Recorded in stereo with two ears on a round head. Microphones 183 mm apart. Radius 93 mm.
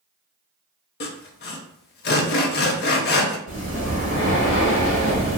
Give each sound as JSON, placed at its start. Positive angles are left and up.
{"t": 1.0, "sound": "sawing", "side_deg": 50, "distance_m": 0.5}
{"t": 3.5, "sound": "breathing", "side_deg": 55, "distance_m": 2.0}